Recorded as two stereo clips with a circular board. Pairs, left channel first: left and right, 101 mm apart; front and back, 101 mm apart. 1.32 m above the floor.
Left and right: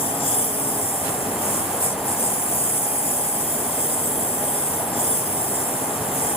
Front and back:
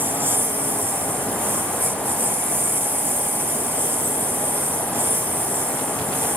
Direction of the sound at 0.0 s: 110° left.